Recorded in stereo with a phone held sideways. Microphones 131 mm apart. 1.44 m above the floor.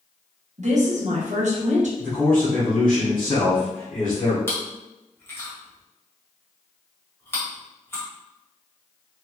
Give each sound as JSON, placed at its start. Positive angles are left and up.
{"t": 0.6, "sound": "a woman speaking", "side_deg": -65, "distance_m": 0.8}
{"t": 2.0, "sound": "a man speaking", "side_deg": 80, "distance_m": 1.4}
{"t": 4.5, "sound": "chewing", "side_deg": 15, "distance_m": 1.0}